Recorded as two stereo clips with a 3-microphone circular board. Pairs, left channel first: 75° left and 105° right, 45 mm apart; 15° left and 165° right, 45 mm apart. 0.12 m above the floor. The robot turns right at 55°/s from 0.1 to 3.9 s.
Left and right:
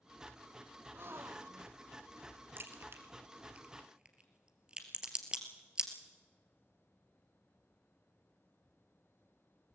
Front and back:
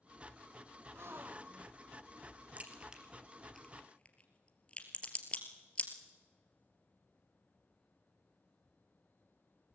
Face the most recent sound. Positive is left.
turn(degrees=-40)